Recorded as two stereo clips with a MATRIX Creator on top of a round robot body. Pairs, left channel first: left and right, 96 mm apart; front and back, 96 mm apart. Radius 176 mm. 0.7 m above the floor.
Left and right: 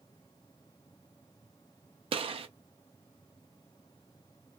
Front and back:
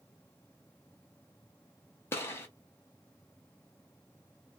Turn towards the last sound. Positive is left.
turn(degrees=-65)